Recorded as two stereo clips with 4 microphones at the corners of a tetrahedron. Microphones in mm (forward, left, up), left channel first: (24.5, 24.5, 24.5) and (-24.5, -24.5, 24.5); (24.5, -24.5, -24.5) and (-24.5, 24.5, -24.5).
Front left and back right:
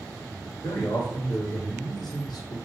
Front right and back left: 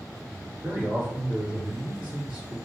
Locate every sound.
0.6 s a man speaking: 70° left, 3 m